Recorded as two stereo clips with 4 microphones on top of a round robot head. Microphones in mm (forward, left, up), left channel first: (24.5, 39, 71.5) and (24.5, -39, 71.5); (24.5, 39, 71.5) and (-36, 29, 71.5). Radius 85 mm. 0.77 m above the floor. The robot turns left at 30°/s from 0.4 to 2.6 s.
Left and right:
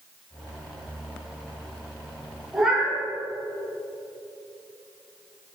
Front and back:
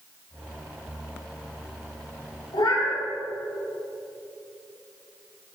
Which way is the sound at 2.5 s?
Straight ahead.